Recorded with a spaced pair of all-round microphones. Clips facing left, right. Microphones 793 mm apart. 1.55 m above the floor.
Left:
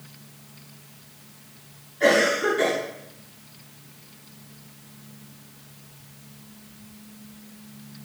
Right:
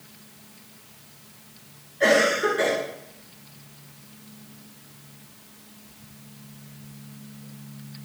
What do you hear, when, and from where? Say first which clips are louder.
2.0 s a cough: even; 20° right (ahead or behind), 6.5 m